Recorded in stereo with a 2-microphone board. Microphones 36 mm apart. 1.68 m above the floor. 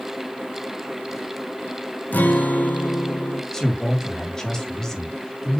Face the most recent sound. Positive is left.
turn(degrees=20)  # may be behind; listen again after turning